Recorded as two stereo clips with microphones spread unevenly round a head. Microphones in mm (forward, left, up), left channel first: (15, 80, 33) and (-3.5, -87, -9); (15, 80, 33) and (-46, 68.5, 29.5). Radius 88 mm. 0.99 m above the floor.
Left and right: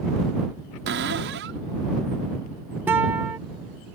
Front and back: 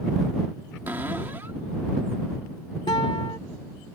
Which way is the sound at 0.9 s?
100° right.